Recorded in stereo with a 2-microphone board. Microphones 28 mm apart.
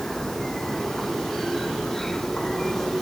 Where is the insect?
15° left (ahead or behind).